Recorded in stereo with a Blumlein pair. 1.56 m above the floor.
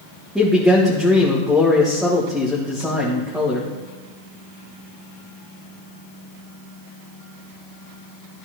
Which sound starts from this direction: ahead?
A man speaking, at 0.3 s.